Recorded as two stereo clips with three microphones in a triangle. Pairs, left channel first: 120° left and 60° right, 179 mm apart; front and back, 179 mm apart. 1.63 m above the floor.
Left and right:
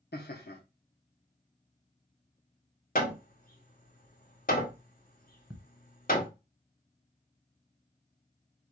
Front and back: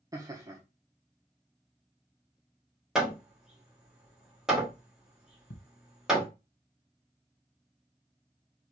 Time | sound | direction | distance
0.1 | laughter | 115° left | 0.9 m
3.0 | hammering | 95° left | 1.7 m
5.5 | ticking | 30° left | 1.4 m